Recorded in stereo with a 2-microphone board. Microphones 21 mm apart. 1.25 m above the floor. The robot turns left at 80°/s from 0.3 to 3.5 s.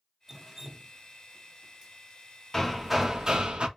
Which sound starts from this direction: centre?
Dripping, at 0.3 s.